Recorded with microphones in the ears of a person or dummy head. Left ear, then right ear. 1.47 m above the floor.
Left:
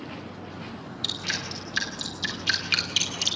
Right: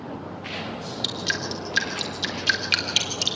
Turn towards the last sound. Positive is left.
turn(degrees=-10)  # may be behind; listen again after turning